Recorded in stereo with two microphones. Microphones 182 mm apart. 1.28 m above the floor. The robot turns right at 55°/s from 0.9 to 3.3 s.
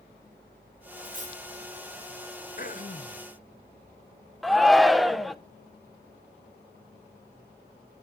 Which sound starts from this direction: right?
Cutlery clinking, at 1.0 s.